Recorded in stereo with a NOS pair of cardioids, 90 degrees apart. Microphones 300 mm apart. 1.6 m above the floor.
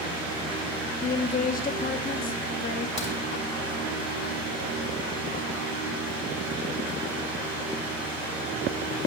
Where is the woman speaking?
30° left, 0.9 m.